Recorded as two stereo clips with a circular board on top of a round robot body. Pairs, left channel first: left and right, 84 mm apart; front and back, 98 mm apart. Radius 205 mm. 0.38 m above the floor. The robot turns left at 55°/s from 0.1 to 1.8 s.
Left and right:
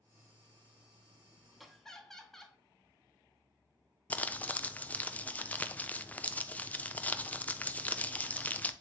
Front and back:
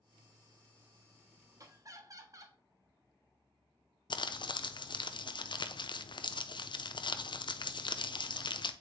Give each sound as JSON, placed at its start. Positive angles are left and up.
{"t": 1.6, "sound": "laughter", "azimuth_deg": -175, "distance_m": 1.4}
{"t": 4.1, "sound": "crumpling", "azimuth_deg": 20, "distance_m": 0.7}